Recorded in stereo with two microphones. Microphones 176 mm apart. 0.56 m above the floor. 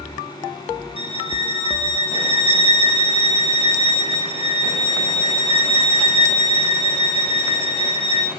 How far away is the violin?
About 1.2 m.